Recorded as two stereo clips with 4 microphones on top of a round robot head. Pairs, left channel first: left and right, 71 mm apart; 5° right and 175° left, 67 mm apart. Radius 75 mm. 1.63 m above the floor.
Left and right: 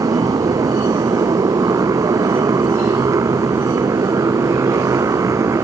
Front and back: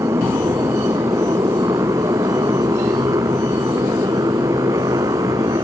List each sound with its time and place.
0.0 s a motorcycle: 130° right; by 5.7 s 135° right